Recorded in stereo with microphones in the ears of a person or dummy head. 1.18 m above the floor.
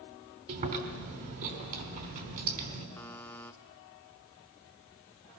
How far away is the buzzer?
About 0.8 m.